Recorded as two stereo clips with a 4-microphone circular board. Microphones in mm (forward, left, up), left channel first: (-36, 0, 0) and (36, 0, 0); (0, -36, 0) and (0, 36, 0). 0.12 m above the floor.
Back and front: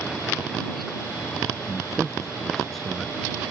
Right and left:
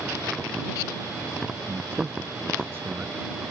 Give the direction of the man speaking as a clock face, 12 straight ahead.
9 o'clock.